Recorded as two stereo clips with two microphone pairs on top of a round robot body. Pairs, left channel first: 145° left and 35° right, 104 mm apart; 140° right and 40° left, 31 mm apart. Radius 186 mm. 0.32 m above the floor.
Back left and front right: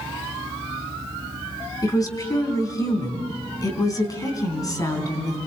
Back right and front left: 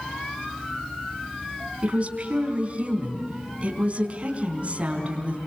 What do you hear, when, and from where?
1.8 s a woman speaking: 90° left, 4.5 m